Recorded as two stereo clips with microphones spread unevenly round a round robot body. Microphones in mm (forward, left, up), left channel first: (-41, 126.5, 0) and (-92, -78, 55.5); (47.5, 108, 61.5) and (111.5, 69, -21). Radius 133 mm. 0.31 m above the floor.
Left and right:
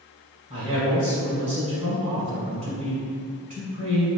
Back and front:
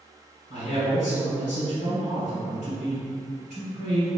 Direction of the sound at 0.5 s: 175° right.